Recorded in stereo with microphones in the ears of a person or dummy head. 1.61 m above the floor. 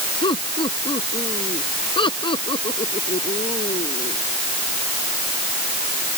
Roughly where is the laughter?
Left.